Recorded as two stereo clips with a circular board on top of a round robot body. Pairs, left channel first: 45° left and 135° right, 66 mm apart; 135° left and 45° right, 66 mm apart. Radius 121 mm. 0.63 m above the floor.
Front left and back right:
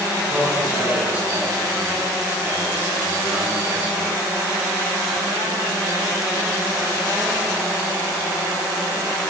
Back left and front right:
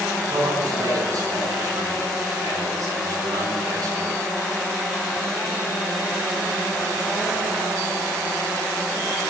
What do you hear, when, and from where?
0.3 s a man speaking: 75° right, 6.5 m